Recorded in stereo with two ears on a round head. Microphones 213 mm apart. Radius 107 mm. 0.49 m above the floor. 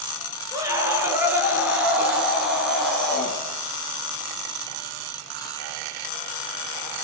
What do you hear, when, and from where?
0.5 s a scream: 15° right (ahead or behind), 7.5 m; by 3.4 s 5° left (ahead or behind), 8.5 m